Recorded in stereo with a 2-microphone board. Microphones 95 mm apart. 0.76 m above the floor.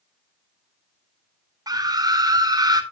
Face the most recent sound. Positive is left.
turn(degrees=-40)  # may be behind; listen again after turning